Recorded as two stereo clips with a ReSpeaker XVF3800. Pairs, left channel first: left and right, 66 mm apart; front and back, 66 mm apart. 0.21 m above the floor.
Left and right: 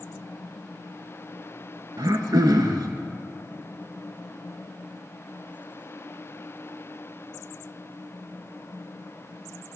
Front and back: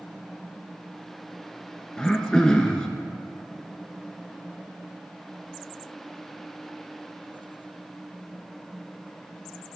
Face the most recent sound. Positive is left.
turn(degrees=-80)